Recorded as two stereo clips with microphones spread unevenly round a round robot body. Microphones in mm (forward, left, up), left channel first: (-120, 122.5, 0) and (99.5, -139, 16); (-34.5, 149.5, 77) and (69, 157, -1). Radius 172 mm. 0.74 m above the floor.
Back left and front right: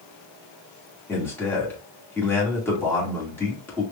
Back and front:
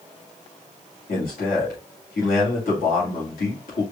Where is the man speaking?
150° right, 2 m.